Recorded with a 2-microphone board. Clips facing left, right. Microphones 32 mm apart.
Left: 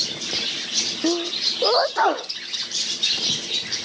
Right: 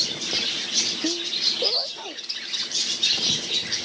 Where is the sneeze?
75° left (ahead or behind).